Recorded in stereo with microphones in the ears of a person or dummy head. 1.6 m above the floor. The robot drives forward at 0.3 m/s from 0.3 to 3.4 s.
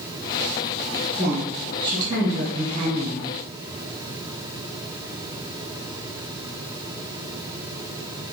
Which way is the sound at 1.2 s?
30° right (ahead or behind).